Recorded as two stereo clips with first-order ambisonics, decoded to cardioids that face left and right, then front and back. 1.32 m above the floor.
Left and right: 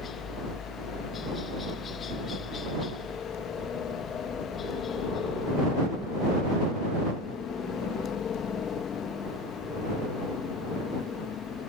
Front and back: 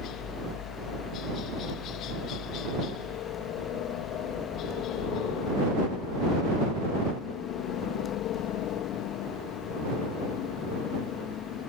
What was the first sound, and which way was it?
A helicopter, 30° left.